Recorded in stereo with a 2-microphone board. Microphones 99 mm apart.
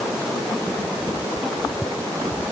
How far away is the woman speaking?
No woman speaking in this recording.